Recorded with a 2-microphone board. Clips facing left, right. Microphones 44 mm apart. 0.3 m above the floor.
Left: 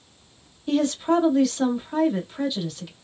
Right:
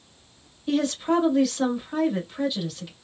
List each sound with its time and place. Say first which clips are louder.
0.7 s a woman speaking: left 2 dB; centre (ahead or behind), 1.3 m